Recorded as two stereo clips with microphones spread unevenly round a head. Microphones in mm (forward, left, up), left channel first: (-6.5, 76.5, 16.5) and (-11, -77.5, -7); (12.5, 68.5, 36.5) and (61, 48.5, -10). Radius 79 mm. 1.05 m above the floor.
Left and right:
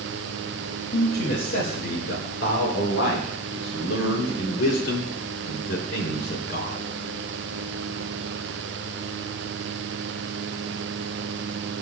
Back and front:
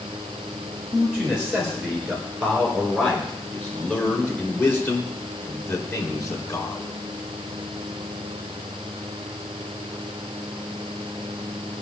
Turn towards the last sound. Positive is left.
turn(degrees=125)